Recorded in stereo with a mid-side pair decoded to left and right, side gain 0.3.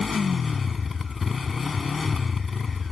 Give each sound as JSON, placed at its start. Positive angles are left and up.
{"t": 0.0, "sound": "a motorcycle", "azimuth_deg": 40}